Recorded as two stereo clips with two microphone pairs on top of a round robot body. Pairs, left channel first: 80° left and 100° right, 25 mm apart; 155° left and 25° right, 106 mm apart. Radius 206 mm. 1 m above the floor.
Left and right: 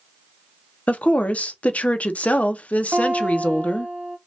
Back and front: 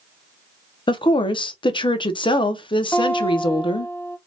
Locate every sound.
0.9 s a woman speaking: 110° left, 0.6 m
2.9 s a guitar: 135° right, 0.7 m